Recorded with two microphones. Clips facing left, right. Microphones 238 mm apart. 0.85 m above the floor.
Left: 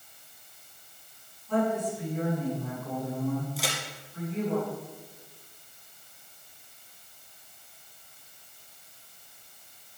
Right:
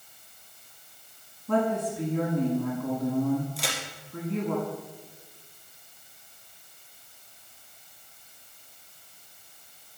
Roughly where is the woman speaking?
Right.